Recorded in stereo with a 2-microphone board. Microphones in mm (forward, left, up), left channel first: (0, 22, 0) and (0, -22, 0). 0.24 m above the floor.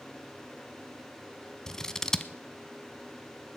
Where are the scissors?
15° left (ahead or behind), 0.7 m.